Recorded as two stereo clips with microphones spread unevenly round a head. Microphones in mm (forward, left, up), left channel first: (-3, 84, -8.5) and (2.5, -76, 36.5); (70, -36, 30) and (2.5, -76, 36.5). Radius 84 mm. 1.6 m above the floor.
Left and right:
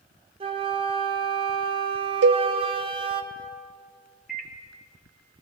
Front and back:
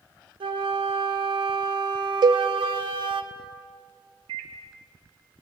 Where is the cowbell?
115° right, 0.5 m.